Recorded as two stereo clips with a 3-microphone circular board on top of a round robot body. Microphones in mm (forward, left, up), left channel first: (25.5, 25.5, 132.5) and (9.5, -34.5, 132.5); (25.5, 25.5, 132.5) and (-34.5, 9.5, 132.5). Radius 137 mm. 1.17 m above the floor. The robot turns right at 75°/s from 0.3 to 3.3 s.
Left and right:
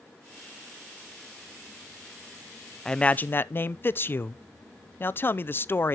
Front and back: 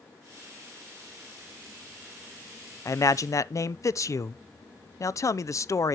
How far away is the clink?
I don't hear a clink.